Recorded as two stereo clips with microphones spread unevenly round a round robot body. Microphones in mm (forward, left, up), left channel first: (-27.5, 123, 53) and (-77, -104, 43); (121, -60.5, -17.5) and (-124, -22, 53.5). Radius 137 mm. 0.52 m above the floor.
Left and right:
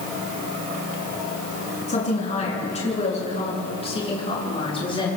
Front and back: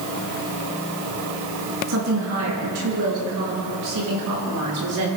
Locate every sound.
1.9 s a woman speaking: 135° left, 7.5 m; by 5.1 s 145° left, 10.5 m